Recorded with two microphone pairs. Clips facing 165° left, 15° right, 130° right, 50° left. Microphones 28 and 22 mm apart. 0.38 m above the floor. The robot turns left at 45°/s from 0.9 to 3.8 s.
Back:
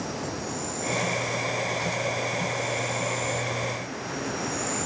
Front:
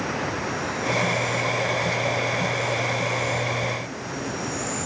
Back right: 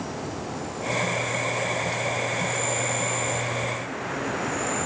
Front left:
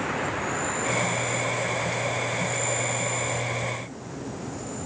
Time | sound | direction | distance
0.0 | an insect | 30° left | ?